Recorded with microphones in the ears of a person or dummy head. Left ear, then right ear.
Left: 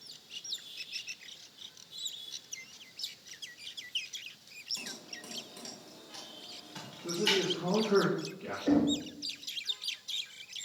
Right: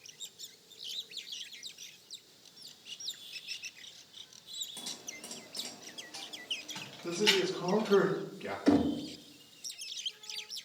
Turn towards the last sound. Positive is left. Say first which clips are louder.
# right 1 dB
turn(degrees=-60)  # may be behind; listen again after turning